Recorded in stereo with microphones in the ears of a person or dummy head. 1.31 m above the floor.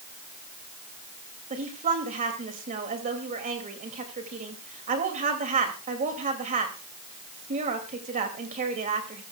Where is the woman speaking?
45° right (ahead or behind), 2.5 m.